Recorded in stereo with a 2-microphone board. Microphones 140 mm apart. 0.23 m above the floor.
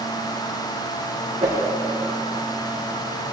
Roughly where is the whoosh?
Right.